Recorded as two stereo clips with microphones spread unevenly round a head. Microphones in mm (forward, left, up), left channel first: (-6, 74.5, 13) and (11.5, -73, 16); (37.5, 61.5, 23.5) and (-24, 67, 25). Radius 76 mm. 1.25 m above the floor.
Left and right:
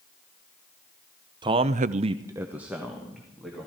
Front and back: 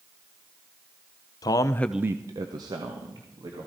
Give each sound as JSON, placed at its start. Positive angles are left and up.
{"t": 1.4, "sound": "a man speaking", "azimuth_deg": -25, "distance_m": 0.9}